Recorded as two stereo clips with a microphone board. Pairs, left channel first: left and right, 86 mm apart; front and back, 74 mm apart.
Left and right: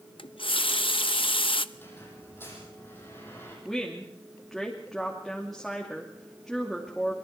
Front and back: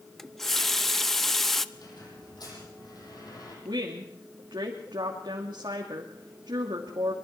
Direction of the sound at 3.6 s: Straight behind.